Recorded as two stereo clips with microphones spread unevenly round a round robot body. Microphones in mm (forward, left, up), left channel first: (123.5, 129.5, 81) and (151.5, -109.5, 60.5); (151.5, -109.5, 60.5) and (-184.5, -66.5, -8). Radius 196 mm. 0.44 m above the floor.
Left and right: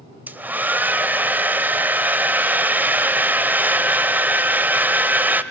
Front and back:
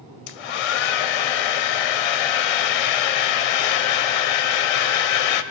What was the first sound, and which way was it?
A hair dryer, straight ahead.